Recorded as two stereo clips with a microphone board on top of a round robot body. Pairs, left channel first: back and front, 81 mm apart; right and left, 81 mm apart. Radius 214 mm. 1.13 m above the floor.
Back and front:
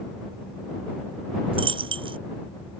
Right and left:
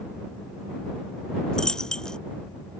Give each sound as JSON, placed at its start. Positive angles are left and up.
{"t": 1.5, "sound": "a dropped coin", "azimuth_deg": -10}